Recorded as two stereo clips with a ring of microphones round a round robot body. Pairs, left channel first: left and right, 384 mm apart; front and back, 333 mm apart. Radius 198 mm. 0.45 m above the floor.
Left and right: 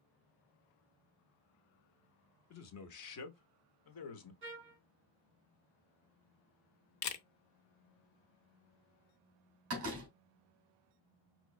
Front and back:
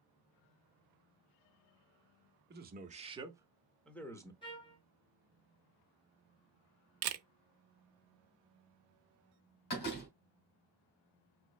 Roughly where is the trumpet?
Ahead right.